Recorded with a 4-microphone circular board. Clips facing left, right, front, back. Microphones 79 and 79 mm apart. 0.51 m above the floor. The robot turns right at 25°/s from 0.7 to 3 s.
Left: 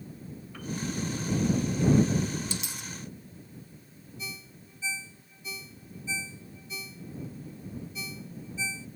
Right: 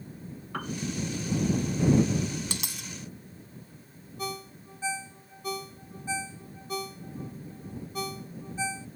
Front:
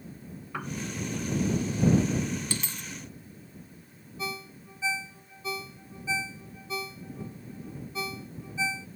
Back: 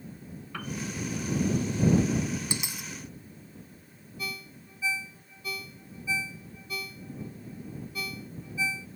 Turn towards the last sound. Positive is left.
turn(degrees=-65)